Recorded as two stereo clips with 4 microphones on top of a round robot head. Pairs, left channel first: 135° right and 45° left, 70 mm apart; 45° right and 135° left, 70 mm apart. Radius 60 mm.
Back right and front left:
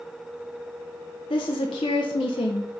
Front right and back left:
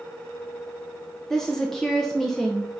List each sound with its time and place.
1.3 s a woman speaking: 130° right, 0.7 m